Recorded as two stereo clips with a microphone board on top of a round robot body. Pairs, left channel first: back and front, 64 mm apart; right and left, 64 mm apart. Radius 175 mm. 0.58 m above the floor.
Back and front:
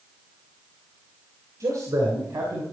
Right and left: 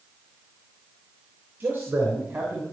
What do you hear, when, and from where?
1.6 s a man speaking: 30° left, 3.5 m; by 2.6 s 25° left, 3.5 m